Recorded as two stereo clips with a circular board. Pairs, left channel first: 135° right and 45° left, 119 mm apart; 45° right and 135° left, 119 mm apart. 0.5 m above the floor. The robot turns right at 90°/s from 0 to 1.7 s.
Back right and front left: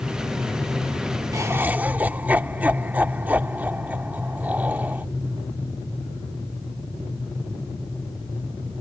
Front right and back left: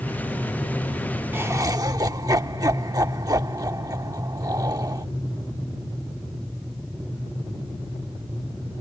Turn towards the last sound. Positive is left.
turn(degrees=110)